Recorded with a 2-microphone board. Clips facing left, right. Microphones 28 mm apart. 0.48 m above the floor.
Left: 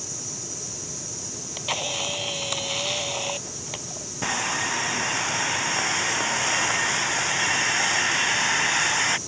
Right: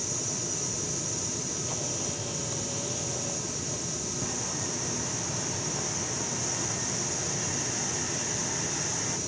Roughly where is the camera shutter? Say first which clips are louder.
Left 5 dB; left.